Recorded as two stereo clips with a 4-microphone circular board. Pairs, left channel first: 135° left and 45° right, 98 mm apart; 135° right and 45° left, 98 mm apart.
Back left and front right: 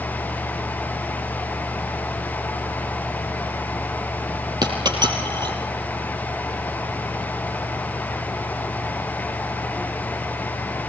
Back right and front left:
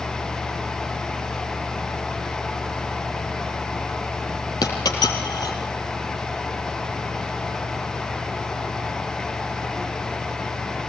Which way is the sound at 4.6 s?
90° right.